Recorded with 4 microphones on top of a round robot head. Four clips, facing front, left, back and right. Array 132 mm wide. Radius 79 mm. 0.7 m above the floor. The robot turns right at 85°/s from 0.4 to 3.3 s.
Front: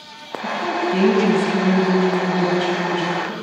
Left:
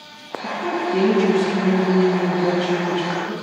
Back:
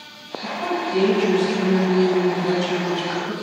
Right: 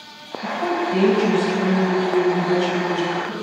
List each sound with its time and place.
0.4 s a woman speaking: 110° right, 4.5 m; by 3.3 s 135° left, 4.5 m